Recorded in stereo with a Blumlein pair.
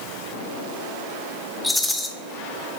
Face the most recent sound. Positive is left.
turn(degrees=5)